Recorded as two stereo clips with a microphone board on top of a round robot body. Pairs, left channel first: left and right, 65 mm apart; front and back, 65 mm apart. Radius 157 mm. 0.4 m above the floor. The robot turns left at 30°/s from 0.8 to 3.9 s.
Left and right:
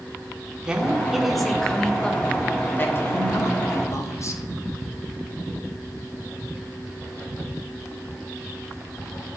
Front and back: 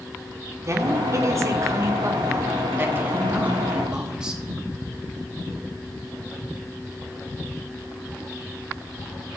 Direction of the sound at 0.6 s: 165° right.